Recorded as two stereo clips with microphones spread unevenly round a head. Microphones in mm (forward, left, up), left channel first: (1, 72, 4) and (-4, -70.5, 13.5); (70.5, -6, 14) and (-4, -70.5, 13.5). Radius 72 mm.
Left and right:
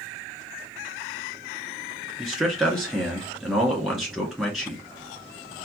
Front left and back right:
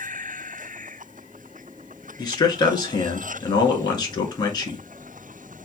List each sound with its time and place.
2.2 s a man speaking: straight ahead, 2.0 m